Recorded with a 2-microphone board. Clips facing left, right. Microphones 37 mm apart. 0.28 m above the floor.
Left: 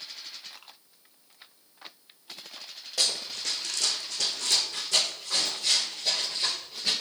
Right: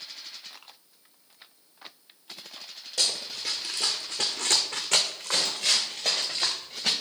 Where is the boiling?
I don't hear boiling.